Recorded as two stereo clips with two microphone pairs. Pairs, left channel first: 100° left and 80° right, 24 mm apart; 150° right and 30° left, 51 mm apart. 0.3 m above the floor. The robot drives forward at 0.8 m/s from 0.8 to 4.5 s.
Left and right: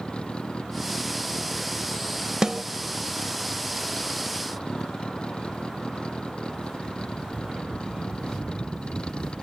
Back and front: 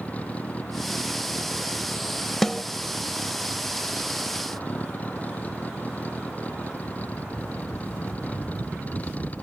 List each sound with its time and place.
0.0 s a vehicle: 150° left
2.4 s a snare drum: 65° right; by 2.6 s 80° right